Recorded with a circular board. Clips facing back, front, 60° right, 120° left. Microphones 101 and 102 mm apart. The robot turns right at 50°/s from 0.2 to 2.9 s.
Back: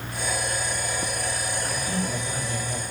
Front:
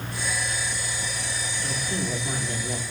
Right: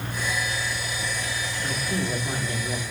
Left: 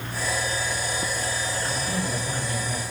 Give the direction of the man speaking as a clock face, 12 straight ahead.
2 o'clock.